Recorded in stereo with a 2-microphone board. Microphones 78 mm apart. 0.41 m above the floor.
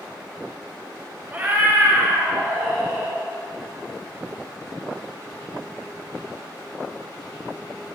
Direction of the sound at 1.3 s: 20° right (ahead or behind).